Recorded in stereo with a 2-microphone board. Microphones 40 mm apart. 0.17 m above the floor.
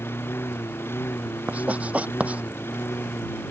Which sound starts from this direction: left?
A lawn mower, at 0.0 s.